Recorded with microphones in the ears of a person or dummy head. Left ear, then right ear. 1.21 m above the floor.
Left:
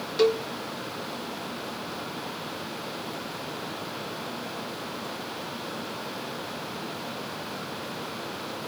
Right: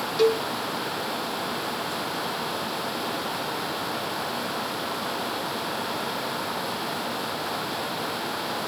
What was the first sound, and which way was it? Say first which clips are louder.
A cowbell: right 1 dB; 5° left (ahead or behind).